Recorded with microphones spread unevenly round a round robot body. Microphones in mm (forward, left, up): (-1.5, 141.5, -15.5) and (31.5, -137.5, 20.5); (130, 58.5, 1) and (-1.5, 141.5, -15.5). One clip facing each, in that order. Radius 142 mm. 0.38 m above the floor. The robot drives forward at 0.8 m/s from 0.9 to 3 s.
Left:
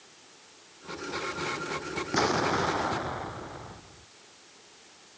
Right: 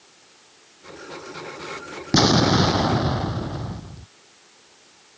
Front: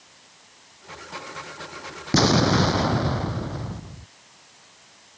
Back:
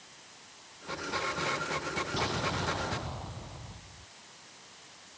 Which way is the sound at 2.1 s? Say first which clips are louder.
Right 10 dB, front 17 dB; 60° right.